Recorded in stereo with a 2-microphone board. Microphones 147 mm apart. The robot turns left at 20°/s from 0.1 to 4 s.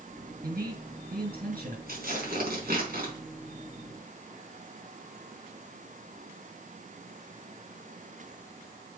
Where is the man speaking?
75° right (ahead or behind), 5.5 m.